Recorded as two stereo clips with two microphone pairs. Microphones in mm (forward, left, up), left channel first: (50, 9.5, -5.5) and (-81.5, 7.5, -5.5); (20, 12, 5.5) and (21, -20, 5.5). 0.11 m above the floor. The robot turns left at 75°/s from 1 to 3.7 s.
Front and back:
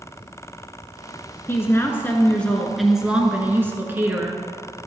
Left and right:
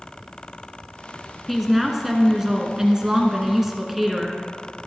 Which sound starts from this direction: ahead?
A woman speaking, at 1.5 s.